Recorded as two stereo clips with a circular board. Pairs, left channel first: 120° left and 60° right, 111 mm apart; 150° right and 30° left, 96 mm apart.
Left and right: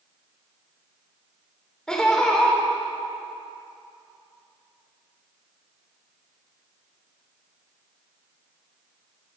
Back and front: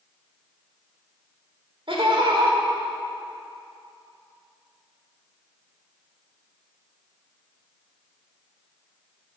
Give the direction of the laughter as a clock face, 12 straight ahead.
11 o'clock.